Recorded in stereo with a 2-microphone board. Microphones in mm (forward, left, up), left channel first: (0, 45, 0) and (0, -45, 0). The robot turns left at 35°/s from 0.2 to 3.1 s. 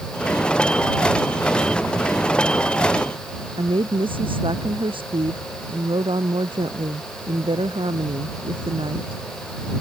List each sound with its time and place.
3.6 s a woman speaking: 70° right (ahead or behind)